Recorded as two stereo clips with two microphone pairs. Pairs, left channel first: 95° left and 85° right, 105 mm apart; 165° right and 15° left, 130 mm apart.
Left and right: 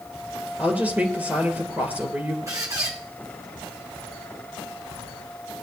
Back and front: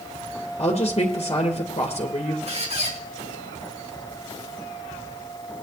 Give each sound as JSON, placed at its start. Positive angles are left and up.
{"t": 0.6, "sound": "a woman speaking", "azimuth_deg": -155, "distance_m": 3.0}
{"t": 2.5, "sound": "a squeak", "azimuth_deg": -20, "distance_m": 2.5}